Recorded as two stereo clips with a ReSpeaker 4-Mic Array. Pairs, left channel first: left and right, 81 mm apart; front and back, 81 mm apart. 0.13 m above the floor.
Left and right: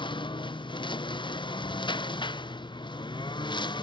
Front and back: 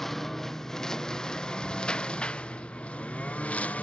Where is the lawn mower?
85° left; by 3.8 s 70° left.